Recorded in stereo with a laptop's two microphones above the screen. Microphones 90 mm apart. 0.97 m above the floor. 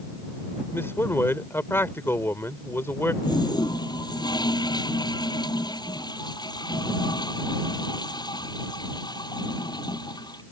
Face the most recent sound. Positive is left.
turn(degrees=50)  # may be behind; listen again after turning